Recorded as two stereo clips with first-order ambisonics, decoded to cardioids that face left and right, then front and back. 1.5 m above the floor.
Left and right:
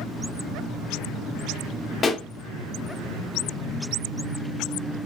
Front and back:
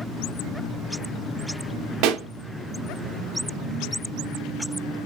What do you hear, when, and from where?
2.0 s a pop: 160° left, 0.7 m